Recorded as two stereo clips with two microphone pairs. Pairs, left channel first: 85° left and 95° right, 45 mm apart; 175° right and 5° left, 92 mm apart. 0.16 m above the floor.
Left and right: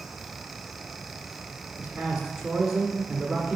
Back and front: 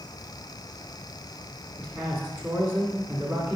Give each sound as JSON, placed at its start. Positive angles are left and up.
{"t": 1.8, "sound": "a man speaking", "azimuth_deg": -15, "distance_m": 1.4}